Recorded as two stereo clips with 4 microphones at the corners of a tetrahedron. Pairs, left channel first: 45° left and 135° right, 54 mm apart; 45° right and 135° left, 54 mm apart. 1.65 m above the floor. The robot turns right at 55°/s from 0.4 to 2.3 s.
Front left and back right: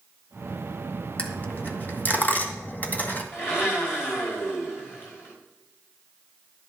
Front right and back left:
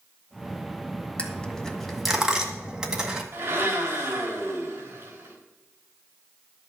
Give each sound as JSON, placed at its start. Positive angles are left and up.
{"t": 1.2, "sound": "a dropped coin", "azimuth_deg": 5, "distance_m": 1.8}
{"t": 3.3, "sound": "a blender", "azimuth_deg": 85, "distance_m": 5.0}